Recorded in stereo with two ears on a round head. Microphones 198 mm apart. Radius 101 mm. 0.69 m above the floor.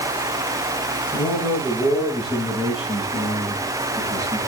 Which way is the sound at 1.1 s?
5° left (ahead or behind).